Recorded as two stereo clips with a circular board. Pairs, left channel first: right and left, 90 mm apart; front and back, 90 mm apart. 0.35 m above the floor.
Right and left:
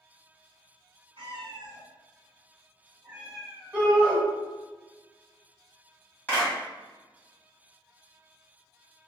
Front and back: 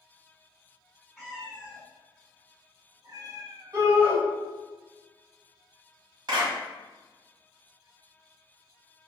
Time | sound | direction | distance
1.2 | a cat meowing | 95° left | 1.3 m
3.7 | a shout | 155° left | 1.7 m
6.3 | a clap | 155° right | 1.8 m